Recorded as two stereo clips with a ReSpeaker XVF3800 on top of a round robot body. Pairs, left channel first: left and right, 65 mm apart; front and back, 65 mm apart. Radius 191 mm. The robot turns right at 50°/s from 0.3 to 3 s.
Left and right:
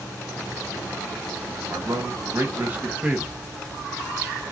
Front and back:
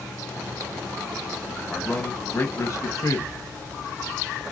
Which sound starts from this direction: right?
A man speaking, at 1.7 s.